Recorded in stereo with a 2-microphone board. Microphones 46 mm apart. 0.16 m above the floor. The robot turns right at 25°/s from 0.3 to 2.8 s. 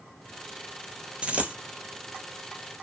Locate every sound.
1.2 s a dropped coin: 25° right (ahead or behind), 0.7 m; by 1.6 s 35° right (ahead or behind), 0.7 m